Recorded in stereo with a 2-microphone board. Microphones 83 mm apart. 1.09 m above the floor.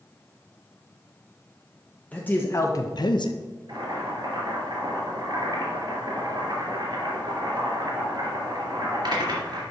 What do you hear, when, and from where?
2.1 s a man speaking: 20° left (ahead or behind), 1.1 m; by 3.4 s 65° left (ahead or behind), 0.8 m
3.7 s boiling: 55° right (ahead or behind), 3.5 m